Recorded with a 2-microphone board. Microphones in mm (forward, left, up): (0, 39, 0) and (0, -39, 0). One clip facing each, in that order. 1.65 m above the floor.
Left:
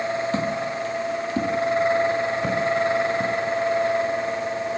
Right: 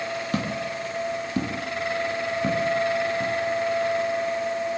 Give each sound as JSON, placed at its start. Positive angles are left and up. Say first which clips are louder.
{"t": 0.3, "sound": "footsteps", "louder": "left 3 dB", "side_deg": -25, "distance_m": 3.0}